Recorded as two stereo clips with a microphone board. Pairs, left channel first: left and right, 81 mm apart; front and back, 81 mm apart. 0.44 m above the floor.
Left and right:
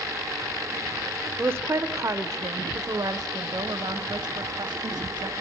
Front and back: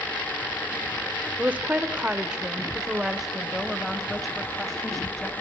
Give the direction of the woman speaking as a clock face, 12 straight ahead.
4 o'clock.